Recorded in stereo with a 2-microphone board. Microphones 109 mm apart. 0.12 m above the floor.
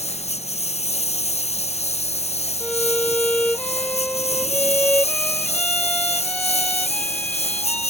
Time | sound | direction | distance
0.0 | a lawn mower | 80° left | ?
2.6 | a violin | 10° left (ahead or behind) | ?